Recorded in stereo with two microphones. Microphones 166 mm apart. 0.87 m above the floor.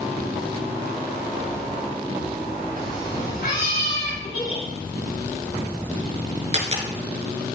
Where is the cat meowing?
60° left (ahead or behind), 7.5 m.